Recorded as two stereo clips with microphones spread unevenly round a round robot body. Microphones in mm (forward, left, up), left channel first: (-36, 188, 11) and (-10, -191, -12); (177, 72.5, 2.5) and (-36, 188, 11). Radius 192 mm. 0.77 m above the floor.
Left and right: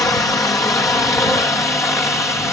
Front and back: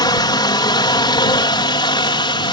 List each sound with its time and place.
0.0 s a helicopter: 15° left; by 2.5 s 10° left